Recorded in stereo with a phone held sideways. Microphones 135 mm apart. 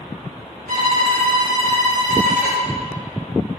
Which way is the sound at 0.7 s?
75° right (ahead or behind).